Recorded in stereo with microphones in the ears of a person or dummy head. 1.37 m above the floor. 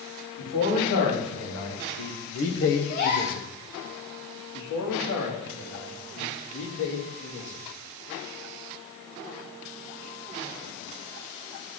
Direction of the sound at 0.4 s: 75° left (ahead or behind).